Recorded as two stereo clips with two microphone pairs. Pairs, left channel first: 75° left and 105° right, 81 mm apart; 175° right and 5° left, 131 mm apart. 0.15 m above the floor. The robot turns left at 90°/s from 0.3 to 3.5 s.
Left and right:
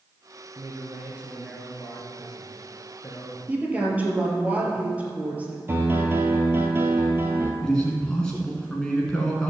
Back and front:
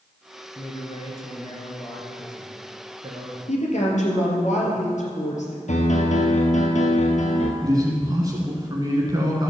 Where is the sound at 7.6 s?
5° left, 1.4 m.